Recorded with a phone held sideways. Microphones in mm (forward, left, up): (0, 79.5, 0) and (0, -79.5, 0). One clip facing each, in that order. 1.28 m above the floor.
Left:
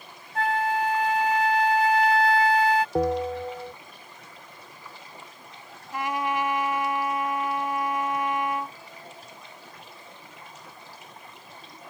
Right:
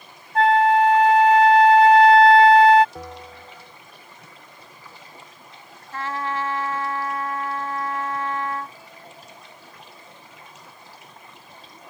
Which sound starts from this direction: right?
A flute, at 0.3 s.